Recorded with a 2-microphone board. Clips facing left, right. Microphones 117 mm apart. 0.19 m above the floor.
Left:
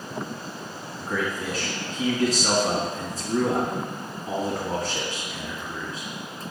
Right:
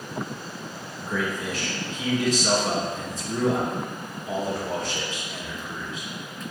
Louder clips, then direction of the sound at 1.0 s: Even; 40° left (ahead or behind).